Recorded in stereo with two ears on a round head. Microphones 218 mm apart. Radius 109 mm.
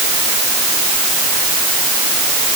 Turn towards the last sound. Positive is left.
No sound to turn to.